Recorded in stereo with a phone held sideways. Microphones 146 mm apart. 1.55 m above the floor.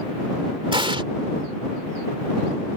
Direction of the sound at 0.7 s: 35° right (ahead or behind).